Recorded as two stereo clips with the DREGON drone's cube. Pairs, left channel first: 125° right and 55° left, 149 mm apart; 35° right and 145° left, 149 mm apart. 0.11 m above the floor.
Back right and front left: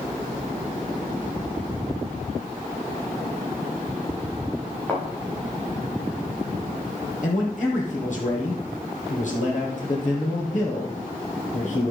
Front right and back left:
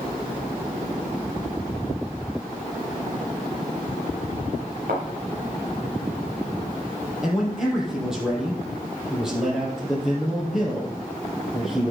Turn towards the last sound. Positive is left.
turn(degrees=-130)